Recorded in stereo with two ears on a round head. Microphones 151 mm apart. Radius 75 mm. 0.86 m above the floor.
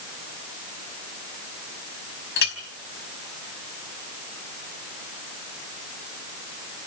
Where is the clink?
65° left (ahead or behind), 4.5 m.